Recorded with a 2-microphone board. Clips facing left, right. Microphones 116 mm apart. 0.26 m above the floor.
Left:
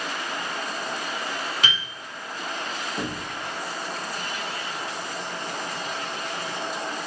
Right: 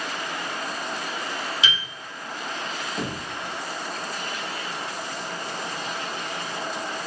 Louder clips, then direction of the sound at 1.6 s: Even; 50° left (ahead or behind).